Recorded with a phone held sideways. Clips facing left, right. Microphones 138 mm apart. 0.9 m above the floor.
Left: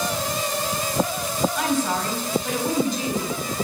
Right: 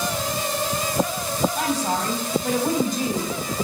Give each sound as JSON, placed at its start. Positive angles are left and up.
{"t": 1.6, "sound": "a woman speaking", "side_deg": -40, "distance_m": 4.5}